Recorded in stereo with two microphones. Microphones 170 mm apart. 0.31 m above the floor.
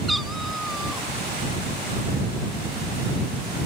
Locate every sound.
0.1 s a cat meowing: centre (ahead or behind)